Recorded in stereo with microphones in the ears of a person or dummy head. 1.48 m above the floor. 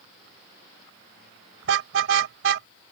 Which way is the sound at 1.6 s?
80° right.